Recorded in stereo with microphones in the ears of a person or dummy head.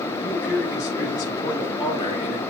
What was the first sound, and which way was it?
A man speaking, 10° left (ahead or behind).